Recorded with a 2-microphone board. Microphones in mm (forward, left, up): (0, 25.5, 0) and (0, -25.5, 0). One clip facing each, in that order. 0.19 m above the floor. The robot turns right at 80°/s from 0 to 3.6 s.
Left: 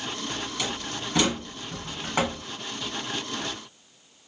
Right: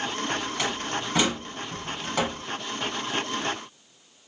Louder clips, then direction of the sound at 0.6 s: Right 3 dB; 40° right (ahead or behind).